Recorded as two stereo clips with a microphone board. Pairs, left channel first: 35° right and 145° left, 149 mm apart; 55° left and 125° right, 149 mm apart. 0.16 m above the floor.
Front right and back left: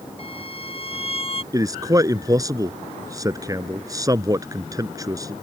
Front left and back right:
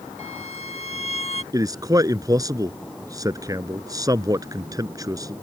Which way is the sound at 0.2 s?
15° left.